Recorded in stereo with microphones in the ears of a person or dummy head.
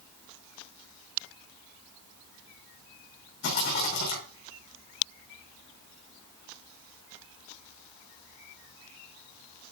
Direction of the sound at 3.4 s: 60° left (ahead or behind).